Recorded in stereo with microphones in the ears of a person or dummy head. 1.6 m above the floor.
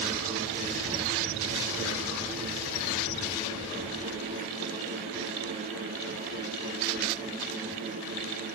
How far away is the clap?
No clap in this recording.